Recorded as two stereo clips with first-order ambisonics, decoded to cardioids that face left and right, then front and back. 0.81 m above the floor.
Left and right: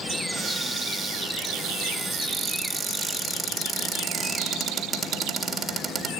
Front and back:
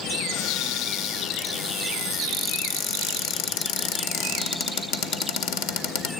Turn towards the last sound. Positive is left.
turn(degrees=-5)